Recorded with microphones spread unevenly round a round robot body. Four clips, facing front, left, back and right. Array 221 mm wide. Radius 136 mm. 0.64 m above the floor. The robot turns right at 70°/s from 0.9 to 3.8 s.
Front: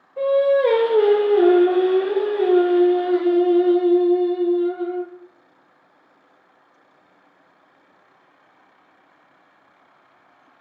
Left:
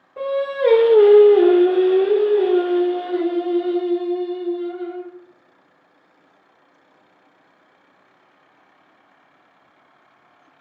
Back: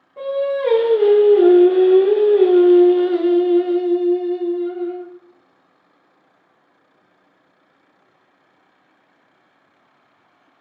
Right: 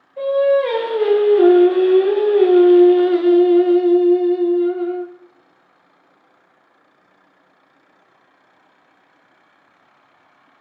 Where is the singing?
100° left, 0.7 m; by 5.1 s 55° right, 0.7 m.